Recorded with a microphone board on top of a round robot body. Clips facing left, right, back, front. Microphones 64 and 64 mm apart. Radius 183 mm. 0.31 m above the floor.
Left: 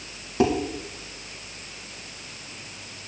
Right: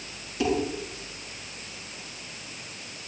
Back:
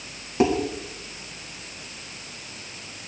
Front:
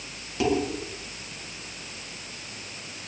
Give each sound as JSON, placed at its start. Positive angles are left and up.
{"t": 0.4, "sound": "dishes clattering", "azimuth_deg": 125, "distance_m": 3.5}